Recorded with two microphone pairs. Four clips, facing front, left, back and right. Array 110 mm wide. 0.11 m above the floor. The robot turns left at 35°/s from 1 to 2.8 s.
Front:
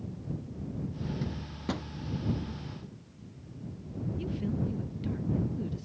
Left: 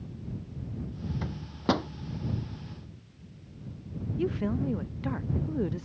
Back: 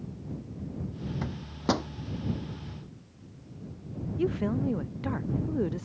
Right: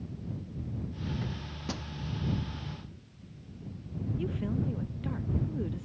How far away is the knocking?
I don't hear knocking.